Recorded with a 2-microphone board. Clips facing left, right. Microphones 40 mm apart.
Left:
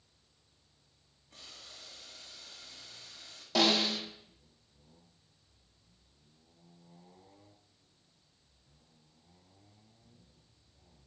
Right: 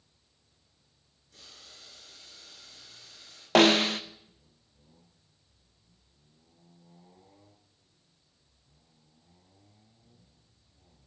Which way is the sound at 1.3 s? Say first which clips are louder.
Left 1 dB; 35° left (ahead or behind).